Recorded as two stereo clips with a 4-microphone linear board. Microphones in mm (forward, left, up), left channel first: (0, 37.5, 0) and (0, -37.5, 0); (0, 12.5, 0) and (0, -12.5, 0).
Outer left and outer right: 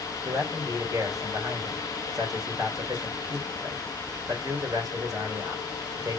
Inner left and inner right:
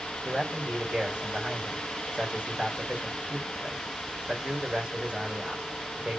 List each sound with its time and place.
0.2 s a man speaking: 50° right (ahead or behind), 2.5 m